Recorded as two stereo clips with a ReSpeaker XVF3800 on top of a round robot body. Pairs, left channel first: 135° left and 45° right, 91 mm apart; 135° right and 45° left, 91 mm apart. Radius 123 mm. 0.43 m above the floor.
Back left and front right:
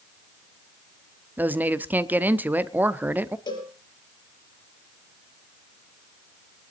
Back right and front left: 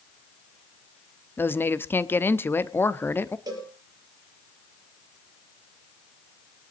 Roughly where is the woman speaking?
Right.